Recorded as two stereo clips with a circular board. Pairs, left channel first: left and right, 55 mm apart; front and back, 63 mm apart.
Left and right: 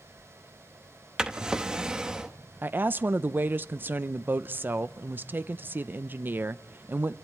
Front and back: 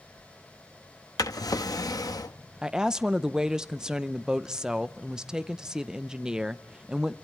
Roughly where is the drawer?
Ahead.